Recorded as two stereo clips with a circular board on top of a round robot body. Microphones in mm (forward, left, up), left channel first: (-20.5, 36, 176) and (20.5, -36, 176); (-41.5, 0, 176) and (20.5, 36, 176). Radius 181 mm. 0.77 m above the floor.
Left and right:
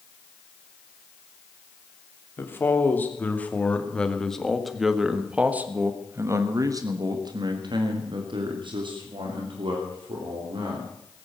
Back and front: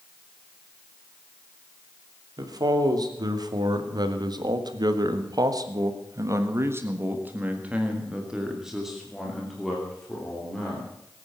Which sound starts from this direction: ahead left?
A man speaking, at 2.4 s.